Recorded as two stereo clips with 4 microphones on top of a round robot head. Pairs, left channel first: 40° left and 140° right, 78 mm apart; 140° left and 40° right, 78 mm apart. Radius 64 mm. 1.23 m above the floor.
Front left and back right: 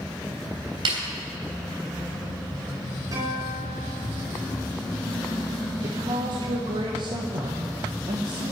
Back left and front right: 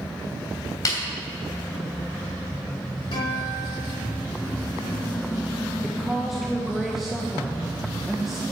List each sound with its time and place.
0.8 s a snare drum: 170° right, 3 m
3.1 s a guitar: 170° left, 4.5 m
5.8 s a woman speaking: 125° right, 1.2 m